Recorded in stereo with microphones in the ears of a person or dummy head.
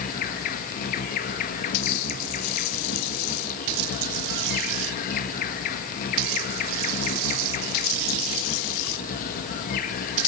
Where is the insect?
45° left (ahead or behind), 1.4 m.